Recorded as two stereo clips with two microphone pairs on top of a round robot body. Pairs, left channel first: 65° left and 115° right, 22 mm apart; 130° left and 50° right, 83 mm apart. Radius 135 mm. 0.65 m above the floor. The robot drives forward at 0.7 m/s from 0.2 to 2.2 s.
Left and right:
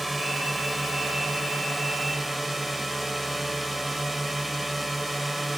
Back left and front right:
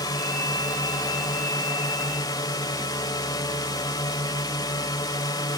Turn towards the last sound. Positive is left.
turn(degrees=160)